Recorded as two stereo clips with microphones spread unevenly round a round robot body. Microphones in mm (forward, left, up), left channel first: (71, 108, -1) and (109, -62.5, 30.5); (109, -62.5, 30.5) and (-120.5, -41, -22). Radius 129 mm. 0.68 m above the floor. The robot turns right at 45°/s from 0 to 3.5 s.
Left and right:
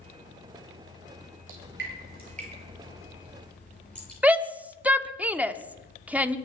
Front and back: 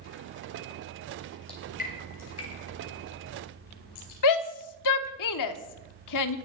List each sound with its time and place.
1.5 s dripping: 75° right, 6 m; by 4.1 s 20° left, 6 m
4.2 s a shout: 10° left, 1.3 m